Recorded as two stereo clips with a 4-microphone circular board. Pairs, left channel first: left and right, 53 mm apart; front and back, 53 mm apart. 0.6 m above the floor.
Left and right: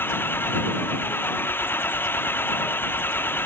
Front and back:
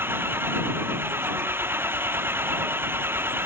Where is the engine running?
135° left.